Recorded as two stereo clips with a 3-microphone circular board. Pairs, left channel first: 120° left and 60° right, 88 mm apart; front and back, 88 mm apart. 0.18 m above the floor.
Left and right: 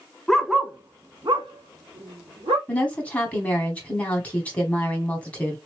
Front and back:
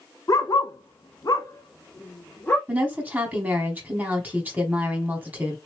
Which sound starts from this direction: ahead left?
A dog barking, at 0.3 s.